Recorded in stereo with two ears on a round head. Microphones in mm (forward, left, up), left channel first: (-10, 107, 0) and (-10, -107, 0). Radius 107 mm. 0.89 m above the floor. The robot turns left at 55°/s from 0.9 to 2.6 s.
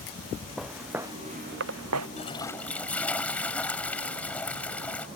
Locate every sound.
0.6 s footsteps: centre (ahead or behind); by 2.1 s 80° right
2.2 s a toilet flushing: 30° left (ahead or behind); by 5.1 s 5° left (ahead or behind)